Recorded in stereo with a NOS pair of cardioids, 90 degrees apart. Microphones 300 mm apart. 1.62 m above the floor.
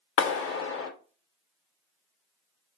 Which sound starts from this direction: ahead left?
A clap, at 0.2 s.